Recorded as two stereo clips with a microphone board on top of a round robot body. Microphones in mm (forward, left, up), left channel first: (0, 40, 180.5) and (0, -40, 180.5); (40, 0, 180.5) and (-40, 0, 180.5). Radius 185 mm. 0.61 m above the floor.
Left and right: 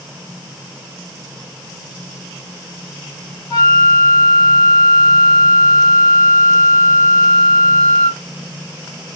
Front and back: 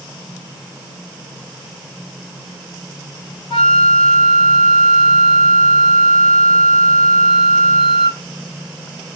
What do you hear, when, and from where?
3.5 s a flute: 35° left, 2 m